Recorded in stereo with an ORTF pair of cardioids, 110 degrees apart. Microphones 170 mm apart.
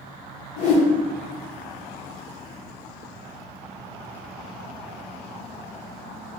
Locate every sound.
0.6 s a whoosh: 50° left, 1.1 m